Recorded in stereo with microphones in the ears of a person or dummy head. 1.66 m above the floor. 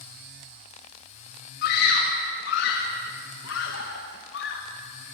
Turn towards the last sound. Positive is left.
turn(degrees=70)  # may be behind; listen again after turning